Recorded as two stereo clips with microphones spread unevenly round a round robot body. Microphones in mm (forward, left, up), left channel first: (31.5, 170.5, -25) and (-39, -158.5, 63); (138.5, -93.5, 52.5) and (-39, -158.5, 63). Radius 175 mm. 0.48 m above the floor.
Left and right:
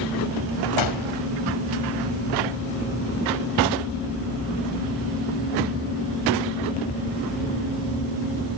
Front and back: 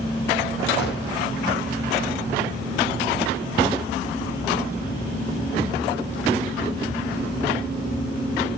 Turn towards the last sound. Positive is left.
turn(degrees=60)